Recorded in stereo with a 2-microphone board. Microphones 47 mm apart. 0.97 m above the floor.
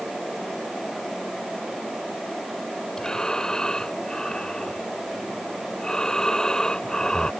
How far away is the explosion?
I don't hear an explosion.